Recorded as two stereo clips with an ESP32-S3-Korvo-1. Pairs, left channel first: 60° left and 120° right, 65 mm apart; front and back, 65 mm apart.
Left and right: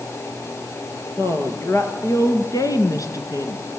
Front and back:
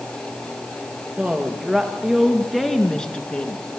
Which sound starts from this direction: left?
A woman speaking, at 1.2 s.